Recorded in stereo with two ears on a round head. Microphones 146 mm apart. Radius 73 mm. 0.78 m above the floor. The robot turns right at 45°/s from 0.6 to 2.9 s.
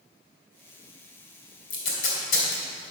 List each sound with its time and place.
1.7 s tape being pulled: 50° left (ahead or behind), 3 m; by 2.6 s 80° left, 3 m